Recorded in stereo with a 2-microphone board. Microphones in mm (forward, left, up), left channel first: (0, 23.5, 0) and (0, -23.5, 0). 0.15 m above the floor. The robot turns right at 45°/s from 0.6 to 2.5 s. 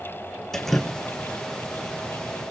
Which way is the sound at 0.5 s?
10° left (ahead or behind).